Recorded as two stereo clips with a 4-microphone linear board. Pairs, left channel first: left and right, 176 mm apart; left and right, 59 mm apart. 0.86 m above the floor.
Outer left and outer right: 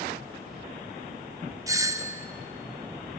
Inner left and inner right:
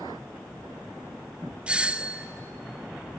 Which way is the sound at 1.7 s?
20° right (ahead or behind).